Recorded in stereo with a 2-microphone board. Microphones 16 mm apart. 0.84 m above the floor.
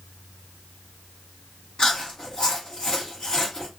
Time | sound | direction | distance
1.8 | chewing | 70° left (ahead or behind) | 1.0 m